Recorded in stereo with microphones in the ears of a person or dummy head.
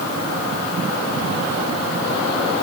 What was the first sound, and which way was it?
Only background noise.